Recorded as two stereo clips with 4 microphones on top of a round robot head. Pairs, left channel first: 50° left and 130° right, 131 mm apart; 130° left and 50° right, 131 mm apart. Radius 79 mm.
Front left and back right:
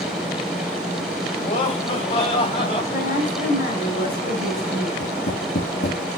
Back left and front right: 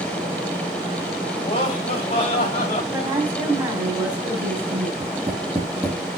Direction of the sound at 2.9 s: 30° left.